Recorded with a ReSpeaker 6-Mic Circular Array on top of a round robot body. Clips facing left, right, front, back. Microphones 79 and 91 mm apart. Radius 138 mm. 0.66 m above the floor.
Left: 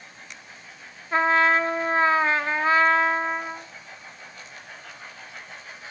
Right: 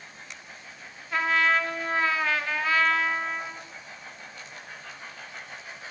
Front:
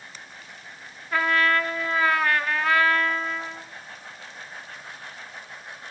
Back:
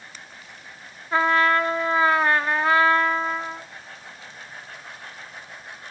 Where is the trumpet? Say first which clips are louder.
Left 4 dB, back 3 dB; 130° left, 0.9 m.